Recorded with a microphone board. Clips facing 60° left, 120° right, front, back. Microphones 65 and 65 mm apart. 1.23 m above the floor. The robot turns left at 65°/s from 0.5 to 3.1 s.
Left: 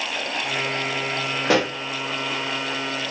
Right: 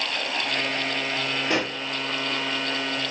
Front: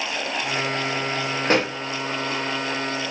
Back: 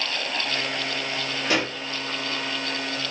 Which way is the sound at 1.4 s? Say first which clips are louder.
Left 7 dB, front 4 dB; 55° left.